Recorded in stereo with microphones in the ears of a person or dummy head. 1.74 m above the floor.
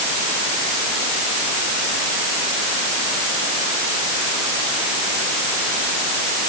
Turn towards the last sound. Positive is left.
No sound to turn to.